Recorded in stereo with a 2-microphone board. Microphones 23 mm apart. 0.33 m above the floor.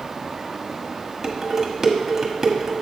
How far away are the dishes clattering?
About 1.2 m.